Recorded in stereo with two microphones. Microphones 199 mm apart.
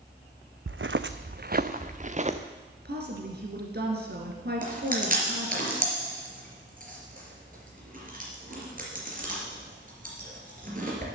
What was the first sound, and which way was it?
Footsteps, 80° right.